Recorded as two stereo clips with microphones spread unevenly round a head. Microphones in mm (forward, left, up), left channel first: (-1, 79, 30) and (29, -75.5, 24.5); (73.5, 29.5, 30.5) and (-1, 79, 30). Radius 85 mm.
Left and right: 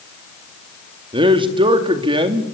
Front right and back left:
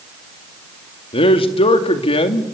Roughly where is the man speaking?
Ahead.